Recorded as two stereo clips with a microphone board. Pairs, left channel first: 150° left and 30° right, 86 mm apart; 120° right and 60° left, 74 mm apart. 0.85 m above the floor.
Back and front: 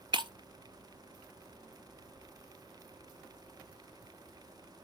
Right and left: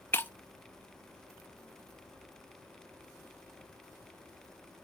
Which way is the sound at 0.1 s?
60° right.